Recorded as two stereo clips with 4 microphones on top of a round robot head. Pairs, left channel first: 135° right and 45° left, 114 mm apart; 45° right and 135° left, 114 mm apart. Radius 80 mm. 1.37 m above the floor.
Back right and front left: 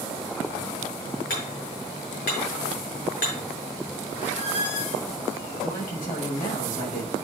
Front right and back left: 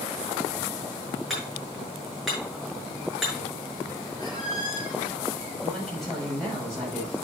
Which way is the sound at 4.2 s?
105° right.